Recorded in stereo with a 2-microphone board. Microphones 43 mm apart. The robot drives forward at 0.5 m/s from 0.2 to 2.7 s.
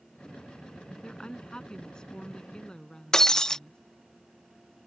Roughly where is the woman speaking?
Centre.